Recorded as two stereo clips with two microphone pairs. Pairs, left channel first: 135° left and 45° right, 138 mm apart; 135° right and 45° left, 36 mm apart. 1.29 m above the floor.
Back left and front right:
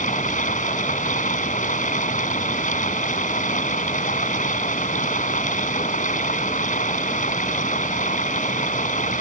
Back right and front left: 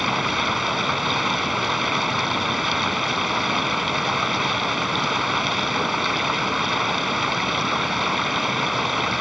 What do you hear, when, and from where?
0.0 s running water: 130° left